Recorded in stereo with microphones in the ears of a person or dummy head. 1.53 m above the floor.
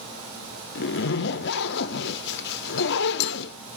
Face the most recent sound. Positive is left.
turn(degrees=55)  # may be behind; listen again after turning